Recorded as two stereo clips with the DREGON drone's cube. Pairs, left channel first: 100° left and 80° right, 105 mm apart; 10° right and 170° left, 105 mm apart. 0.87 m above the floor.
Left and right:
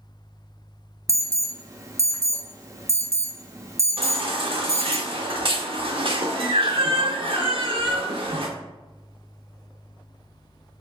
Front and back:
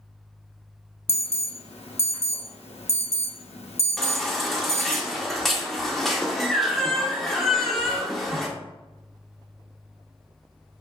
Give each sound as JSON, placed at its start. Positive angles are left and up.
{"t": 1.1, "sound": "an alarm", "azimuth_deg": -15, "distance_m": 0.6}
{"t": 4.0, "sound": "a baby crying", "azimuth_deg": -100, "distance_m": 0.7}